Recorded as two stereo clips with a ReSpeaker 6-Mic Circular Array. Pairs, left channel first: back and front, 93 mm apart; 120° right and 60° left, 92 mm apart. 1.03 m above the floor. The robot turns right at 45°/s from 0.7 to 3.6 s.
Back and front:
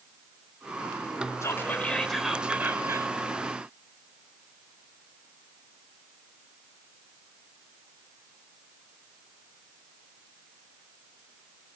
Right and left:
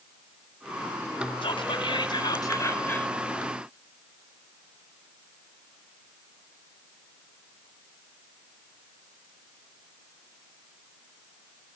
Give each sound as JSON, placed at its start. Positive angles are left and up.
{"t": 1.4, "sound": "whispering", "azimuth_deg": -125, "distance_m": 3.5}